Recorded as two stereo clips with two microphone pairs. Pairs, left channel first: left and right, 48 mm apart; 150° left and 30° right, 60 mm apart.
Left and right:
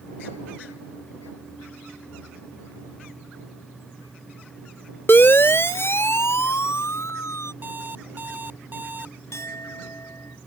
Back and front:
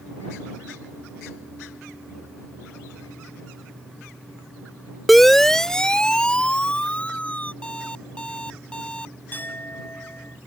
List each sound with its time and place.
5.1 s a siren: 60° left; by 7.5 s 80° left
7.6 s an alarm clock: 140° right
9.3 s a clink: 90° left